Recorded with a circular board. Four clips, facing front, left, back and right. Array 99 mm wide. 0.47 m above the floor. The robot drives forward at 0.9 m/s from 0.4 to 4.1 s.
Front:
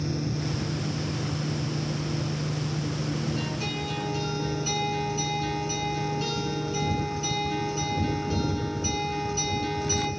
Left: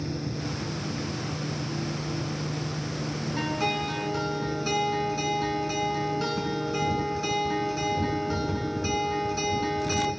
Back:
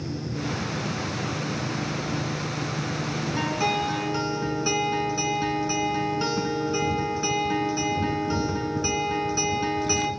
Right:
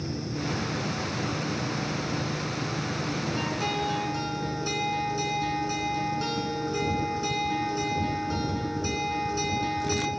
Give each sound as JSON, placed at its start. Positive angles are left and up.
{"t": 3.4, "sound": "a guitar", "azimuth_deg": 160, "distance_m": 2.0}